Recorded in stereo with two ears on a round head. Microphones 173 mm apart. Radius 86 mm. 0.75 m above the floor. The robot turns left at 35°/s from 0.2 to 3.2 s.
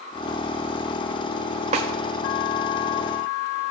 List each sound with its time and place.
1.7 s a snare drum: 35° right (ahead or behind), 1.8 m; by 1.9 s 30° right (ahead or behind), 1.8 m